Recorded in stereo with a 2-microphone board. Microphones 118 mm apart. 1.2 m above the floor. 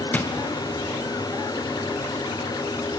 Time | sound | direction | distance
0.1 | a drawer | 15° left (ahead or behind) | 0.6 m